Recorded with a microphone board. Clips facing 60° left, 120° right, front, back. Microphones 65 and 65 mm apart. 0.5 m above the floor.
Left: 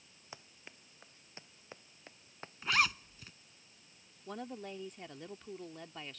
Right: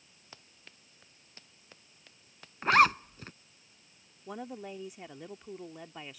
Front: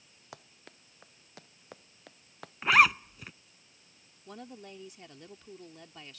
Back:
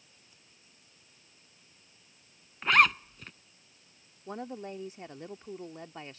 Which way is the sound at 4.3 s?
170° left.